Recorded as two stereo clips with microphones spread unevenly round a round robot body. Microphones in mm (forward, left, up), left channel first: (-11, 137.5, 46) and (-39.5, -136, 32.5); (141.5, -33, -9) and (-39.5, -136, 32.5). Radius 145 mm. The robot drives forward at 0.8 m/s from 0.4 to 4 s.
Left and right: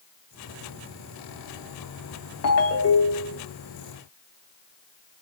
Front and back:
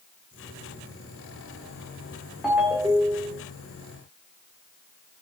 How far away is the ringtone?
About 1.4 m.